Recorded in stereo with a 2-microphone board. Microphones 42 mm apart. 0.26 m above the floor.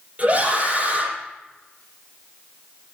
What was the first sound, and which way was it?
A scream, 30° right (ahead or behind).